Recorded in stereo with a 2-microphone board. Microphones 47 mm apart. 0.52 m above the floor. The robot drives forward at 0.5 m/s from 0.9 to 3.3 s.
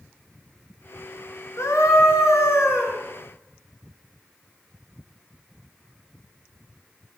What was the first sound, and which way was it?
A scream, 80° left.